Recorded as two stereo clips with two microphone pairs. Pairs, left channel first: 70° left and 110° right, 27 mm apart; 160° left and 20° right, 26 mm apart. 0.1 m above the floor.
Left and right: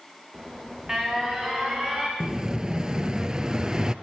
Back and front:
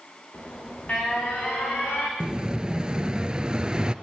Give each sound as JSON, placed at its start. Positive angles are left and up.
{"t": 0.3, "sound": "an alarm", "azimuth_deg": 180, "distance_m": 6.5}
{"t": 2.2, "sound": "an explosion", "azimuth_deg": -65, "distance_m": 1.2}